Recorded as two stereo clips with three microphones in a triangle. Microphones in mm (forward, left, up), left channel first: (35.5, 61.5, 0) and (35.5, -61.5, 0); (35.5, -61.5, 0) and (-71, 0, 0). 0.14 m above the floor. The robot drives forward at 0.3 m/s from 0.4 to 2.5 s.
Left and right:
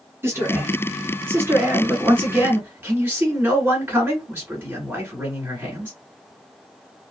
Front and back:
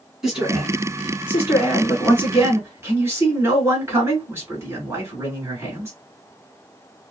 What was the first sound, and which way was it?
A man speaking, 130° right.